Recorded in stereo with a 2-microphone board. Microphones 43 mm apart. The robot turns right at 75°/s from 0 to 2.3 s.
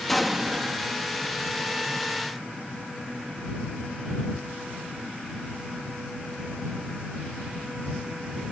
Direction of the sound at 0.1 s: 170° left.